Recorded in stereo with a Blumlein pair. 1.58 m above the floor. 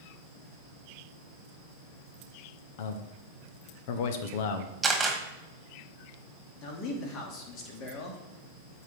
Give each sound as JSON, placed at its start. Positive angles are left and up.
{"t": 2.8, "sound": "a man speaking", "azimuth_deg": 50, "distance_m": 1.0}
{"t": 4.8, "sound": "a camera shutter", "azimuth_deg": -10, "distance_m": 2.0}
{"t": 6.6, "sound": "a man speaking", "azimuth_deg": 35, "distance_m": 2.5}